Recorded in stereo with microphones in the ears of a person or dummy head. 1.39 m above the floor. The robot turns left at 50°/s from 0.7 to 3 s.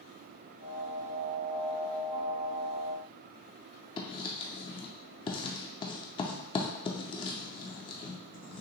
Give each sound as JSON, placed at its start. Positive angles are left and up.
{"t": 4.0, "sound": "writing", "side_deg": 25, "distance_m": 0.6}